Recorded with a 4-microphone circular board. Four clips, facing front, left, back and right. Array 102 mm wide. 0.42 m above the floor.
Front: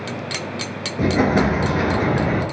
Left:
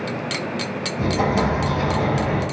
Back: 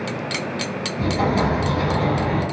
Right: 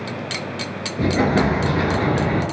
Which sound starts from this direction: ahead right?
An explosion, at 1.0 s.